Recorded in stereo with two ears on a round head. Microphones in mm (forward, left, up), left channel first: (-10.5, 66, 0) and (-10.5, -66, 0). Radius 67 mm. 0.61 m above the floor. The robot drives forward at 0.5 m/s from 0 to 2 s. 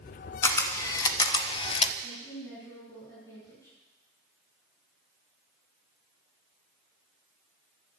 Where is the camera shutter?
15° left (ahead or behind), 1.0 m; by 1.9 s 35° left (ahead or behind), 0.5 m.